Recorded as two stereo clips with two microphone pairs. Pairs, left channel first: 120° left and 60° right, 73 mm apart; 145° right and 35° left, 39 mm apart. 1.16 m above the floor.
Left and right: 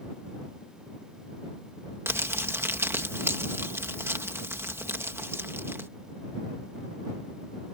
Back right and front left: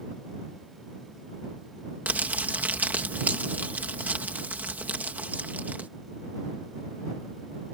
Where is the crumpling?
5° right.